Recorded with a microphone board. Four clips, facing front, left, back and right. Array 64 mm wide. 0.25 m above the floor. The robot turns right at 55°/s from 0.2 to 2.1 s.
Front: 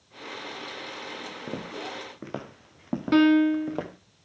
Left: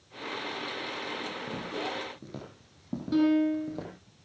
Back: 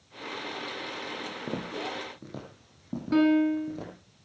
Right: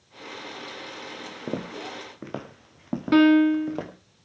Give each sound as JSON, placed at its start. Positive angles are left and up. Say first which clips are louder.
{"t": 1.5, "sound": "footsteps", "louder": "right 5 dB, back 1 dB", "azimuth_deg": -100, "distance_m": 2.5}
{"t": 3.1, "sound": "a piano", "louder": "right 8 dB, front 3 dB", "azimuth_deg": -60, "distance_m": 1.4}